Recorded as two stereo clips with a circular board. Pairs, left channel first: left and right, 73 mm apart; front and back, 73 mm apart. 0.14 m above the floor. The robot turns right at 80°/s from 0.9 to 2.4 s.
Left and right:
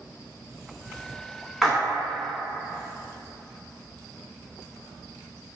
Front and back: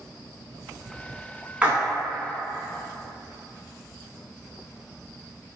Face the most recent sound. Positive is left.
turn(degrees=-120)